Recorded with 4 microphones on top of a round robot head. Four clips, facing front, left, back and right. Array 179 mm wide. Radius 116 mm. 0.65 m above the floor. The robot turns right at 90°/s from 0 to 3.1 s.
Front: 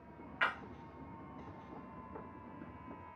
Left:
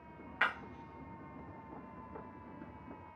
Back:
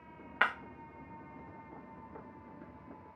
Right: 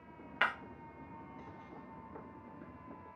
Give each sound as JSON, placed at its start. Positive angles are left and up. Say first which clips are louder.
{"t": 0.4, "sound": "breaking glass", "louder": "even, back 4 dB", "azimuth_deg": -165, "distance_m": 0.9}